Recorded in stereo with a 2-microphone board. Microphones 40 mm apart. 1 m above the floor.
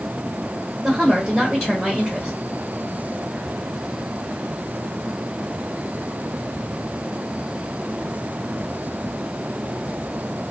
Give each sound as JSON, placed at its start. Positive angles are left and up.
{"t": 0.8, "sound": "a woman speaking", "side_deg": -5, "distance_m": 1.2}